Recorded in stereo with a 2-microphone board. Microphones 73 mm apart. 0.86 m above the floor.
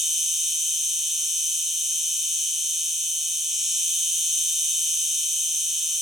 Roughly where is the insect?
Centre.